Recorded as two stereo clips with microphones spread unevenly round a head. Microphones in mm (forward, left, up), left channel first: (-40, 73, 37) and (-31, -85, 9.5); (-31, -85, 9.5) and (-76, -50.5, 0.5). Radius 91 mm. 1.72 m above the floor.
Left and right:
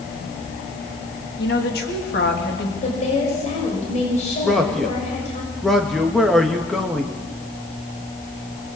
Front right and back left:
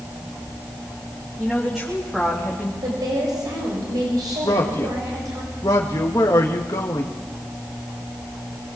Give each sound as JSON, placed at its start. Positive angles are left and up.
{"t": 1.4, "sound": "a woman speaking", "azimuth_deg": 55, "distance_m": 3.5}
{"t": 2.8, "sound": "a woman speaking", "azimuth_deg": 140, "distance_m": 6.5}
{"t": 4.4, "sound": "a man speaking", "azimuth_deg": 5, "distance_m": 2.0}